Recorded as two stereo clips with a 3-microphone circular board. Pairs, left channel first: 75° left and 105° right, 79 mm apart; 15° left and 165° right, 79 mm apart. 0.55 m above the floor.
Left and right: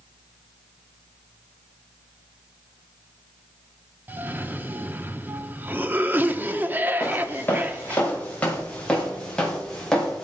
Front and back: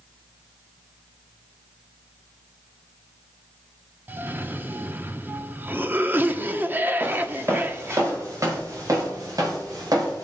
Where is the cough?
140° right, 0.9 m.